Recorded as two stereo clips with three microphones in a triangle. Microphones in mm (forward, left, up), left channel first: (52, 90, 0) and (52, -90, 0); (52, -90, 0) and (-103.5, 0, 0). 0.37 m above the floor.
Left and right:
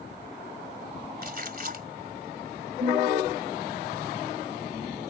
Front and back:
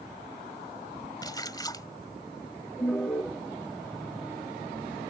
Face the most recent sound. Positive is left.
turn(degrees=-90)